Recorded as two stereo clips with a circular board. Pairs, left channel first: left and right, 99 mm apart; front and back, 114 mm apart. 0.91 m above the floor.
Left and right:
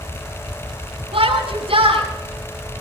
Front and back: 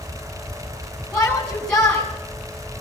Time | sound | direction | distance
1.1 | a shout | 80° right | 8 m